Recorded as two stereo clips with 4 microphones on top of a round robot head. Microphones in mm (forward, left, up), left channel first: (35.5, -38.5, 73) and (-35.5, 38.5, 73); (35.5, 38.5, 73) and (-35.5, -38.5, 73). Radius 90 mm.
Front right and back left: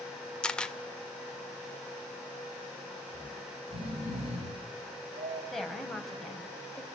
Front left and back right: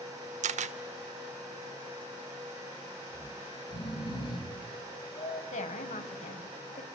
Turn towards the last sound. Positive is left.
turn(degrees=40)